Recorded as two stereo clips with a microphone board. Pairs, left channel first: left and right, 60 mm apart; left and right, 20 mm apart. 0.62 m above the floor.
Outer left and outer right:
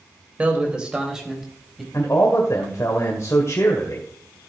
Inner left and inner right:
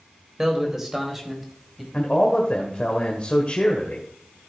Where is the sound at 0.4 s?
25° right (ahead or behind), 3 m; by 1.8 s centre (ahead or behind), 4 m.